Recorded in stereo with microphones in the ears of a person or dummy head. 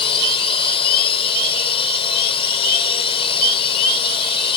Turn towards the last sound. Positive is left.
turn(degrees=30)  # may be behind; listen again after turning